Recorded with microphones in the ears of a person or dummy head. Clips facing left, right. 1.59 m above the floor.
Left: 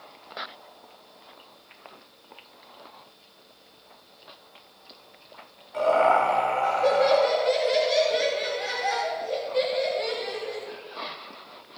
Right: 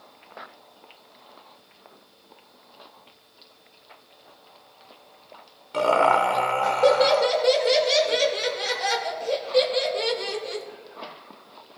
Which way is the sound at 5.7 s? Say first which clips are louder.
Even; 80° right.